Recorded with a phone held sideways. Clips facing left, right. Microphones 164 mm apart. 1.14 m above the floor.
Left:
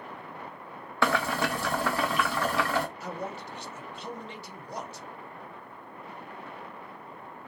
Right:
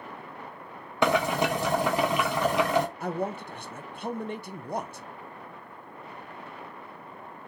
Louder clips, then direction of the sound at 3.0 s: Right 6 dB; 55° right (ahead or behind).